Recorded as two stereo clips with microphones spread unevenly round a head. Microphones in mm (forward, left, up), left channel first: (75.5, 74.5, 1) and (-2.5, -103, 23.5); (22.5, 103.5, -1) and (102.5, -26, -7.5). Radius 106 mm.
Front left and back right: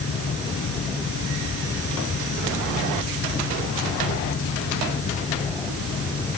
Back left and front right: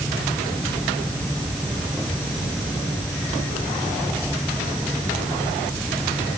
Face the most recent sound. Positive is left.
No sound to turn to.